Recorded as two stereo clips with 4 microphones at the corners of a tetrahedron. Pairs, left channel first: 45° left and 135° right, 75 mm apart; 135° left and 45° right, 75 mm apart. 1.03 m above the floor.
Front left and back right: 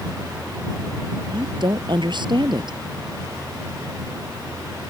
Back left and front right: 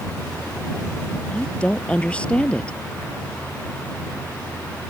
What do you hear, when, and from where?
1.3 s a woman speaking: 150° right